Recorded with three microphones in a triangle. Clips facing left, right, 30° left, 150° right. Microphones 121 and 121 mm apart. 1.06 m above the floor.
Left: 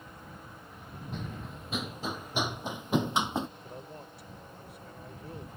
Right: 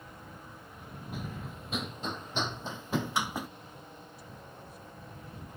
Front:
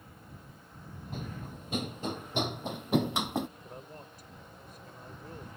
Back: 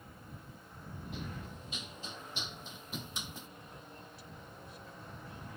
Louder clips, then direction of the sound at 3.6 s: Left 4 dB, front 5 dB; 75° left.